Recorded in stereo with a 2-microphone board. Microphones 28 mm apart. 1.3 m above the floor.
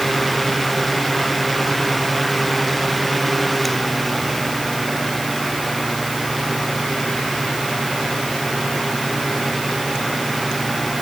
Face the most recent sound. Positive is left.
No sound to turn to.